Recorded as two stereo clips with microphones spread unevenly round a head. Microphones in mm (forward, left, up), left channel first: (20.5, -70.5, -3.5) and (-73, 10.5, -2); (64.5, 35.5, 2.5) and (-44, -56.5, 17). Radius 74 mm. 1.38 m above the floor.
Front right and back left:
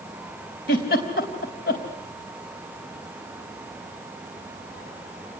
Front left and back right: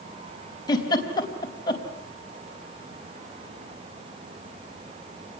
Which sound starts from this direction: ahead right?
A giggle, at 0.7 s.